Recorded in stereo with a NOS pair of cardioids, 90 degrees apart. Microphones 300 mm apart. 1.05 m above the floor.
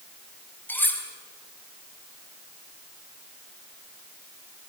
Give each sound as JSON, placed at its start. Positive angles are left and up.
{"t": 0.7, "sound": "cutlery clinking", "azimuth_deg": 5, "distance_m": 4.5}